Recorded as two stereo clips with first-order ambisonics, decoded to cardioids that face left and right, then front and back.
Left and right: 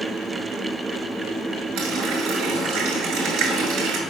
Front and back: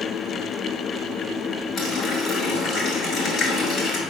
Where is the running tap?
55° right, 1.9 m.